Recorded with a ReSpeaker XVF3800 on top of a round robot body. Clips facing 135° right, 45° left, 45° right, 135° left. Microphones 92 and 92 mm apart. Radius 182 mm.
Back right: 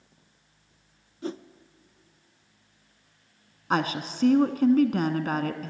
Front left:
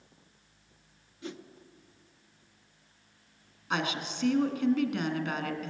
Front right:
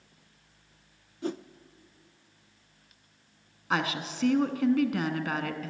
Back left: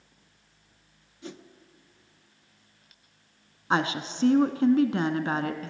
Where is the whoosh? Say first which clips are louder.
Back right 8 dB, front right 9 dB; 85° right, 0.6 m.